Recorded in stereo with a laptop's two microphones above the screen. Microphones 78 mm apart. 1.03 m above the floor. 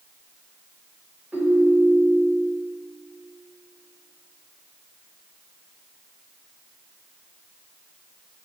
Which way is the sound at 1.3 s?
15° right (ahead or behind).